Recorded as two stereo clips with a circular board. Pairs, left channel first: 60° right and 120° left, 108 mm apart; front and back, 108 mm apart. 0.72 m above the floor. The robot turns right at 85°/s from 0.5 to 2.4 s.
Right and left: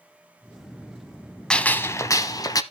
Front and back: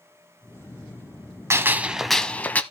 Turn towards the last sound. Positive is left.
turn(degrees=-60)